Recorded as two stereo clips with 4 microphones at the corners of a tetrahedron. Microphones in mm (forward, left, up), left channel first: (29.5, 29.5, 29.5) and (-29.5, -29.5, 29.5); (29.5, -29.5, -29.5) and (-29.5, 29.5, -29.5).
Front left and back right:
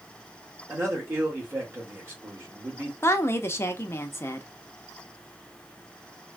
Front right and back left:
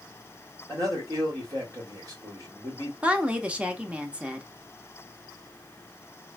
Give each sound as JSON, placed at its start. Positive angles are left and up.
{"t": 0.7, "sound": "a man speaking", "azimuth_deg": 170, "distance_m": 1.6}
{"t": 3.0, "sound": "a woman speaking", "azimuth_deg": 75, "distance_m": 0.5}